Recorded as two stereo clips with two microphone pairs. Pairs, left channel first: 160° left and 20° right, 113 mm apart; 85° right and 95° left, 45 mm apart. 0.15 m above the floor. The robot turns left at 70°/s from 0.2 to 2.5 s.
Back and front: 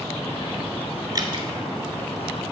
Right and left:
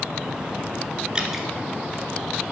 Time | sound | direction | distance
1.1 | dripping | 30° left | 0.6 m